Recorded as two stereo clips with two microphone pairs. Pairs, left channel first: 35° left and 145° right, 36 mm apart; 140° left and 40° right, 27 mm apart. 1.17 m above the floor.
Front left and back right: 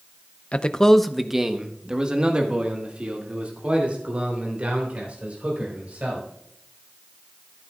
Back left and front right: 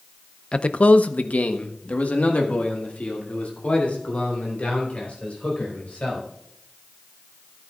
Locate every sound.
0.5 s a man speaking: 95° left, 0.6 m; by 6.3 s 170° left, 4.5 m